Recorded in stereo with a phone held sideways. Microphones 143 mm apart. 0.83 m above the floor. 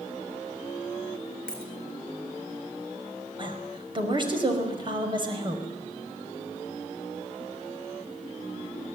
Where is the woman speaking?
35° right (ahead or behind), 5.5 m.